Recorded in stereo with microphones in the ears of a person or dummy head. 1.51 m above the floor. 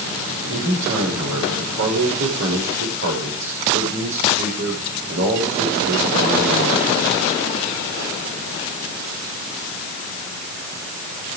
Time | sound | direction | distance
0.5 | a man speaking | 75° right (ahead or behind) | 6.5 m